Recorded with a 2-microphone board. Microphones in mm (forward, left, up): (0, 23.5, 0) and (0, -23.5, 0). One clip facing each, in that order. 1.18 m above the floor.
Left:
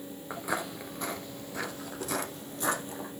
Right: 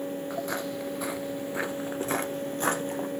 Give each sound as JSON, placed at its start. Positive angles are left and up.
{"t": 0.3, "sound": "footsteps", "side_deg": 15, "distance_m": 1.2}